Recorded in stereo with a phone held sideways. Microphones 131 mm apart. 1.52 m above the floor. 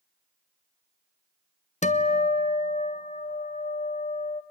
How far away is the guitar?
About 0.8 m.